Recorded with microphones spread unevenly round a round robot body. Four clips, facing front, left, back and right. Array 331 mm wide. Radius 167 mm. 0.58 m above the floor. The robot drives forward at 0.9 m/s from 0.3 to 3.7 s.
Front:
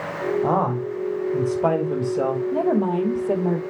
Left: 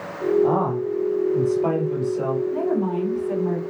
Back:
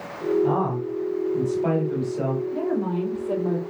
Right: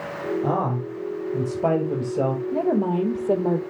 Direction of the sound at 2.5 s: 50° right.